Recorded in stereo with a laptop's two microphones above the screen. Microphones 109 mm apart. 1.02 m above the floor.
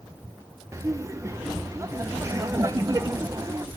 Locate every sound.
0.7 s laughter: 30° right (ahead or behind), 0.6 m